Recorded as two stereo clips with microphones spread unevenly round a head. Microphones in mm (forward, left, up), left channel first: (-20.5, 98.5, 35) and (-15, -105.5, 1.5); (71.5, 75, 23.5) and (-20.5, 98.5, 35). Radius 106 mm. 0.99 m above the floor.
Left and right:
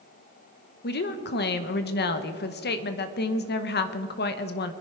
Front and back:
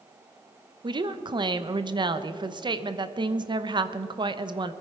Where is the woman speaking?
130° left, 1.0 m.